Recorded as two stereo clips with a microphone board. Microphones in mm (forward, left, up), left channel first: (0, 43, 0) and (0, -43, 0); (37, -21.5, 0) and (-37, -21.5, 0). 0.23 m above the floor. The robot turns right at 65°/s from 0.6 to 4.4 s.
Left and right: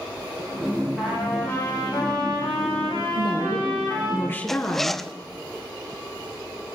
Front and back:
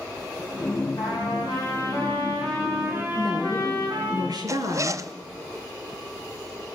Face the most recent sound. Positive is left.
turn(degrees=175)